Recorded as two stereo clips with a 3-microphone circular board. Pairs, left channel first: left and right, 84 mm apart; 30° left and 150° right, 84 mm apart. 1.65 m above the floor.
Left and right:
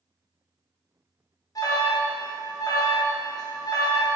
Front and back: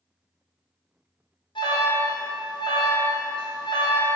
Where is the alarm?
45° left, 1.9 m.